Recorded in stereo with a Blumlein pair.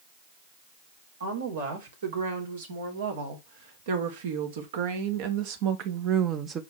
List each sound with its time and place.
1.2 s a woman speaking: 65° right, 3.5 m; by 6.6 s 20° right, 1.0 m